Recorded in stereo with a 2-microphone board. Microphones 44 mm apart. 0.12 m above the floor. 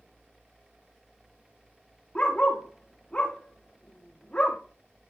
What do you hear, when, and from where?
2.1 s a dog barking: 25° left (ahead or behind), 3 m